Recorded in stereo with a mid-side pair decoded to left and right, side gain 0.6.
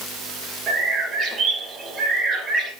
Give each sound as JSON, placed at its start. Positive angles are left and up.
{"t": 0.7, "sound": "a bird", "azimuth_deg": -45, "distance_m": 3.0}